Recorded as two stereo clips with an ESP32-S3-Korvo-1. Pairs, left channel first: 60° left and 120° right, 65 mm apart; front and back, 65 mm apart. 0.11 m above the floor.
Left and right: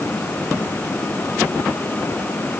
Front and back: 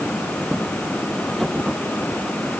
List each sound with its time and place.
Only background noise.